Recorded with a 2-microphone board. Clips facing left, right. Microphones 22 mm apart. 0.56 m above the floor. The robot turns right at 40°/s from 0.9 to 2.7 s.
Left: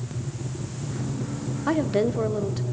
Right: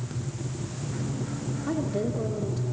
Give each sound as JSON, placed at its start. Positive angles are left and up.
{"t": 1.7, "sound": "a woman speaking", "azimuth_deg": 85, "distance_m": 1.2}